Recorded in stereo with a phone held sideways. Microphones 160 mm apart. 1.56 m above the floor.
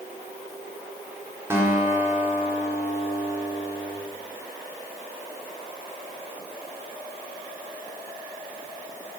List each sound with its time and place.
1.5 s a guitar: 15° right (ahead or behind), 4 m